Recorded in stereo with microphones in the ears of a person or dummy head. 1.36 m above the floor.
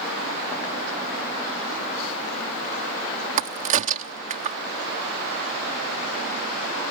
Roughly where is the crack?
Right.